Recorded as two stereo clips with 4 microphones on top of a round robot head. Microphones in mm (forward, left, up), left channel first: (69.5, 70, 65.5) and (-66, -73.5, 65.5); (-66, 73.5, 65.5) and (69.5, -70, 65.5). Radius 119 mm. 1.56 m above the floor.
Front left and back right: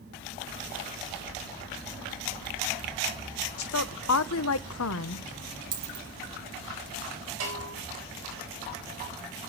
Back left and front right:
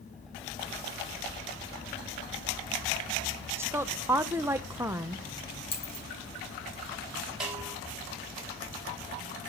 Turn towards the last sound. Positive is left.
turn(degrees=-135)